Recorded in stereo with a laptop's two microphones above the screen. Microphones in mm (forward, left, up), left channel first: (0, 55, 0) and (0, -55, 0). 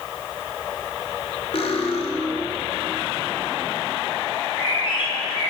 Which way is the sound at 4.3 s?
60° left (ahead or behind).